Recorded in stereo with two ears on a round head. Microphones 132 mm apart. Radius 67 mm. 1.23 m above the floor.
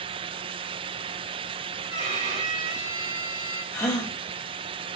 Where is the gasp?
25° left (ahead or behind), 1.3 m.